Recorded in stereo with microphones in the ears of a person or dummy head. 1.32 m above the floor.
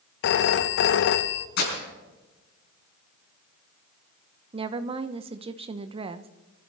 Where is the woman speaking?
35° right (ahead or behind), 0.9 m.